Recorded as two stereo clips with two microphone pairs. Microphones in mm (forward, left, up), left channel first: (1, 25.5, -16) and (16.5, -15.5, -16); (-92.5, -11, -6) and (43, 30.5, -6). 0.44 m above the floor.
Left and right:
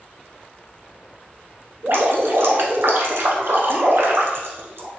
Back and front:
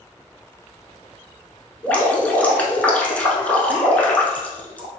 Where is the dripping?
85° right, 1.0 m.